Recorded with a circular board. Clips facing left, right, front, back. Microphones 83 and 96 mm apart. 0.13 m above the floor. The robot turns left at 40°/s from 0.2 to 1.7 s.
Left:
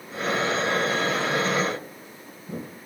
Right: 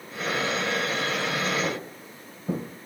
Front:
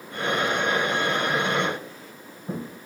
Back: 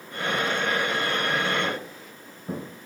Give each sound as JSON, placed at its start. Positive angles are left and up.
{"t": 1.6, "sound": "footsteps", "azimuth_deg": -95, "distance_m": 7.0}